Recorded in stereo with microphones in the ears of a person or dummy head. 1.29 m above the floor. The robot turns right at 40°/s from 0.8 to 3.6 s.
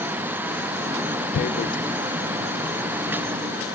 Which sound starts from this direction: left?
Tearing paper, at 1.3 s.